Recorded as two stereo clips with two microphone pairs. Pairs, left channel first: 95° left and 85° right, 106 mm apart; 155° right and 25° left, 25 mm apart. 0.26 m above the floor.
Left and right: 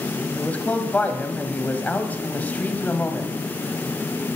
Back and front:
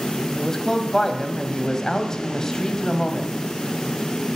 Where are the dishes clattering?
No dishes clattering in this recording.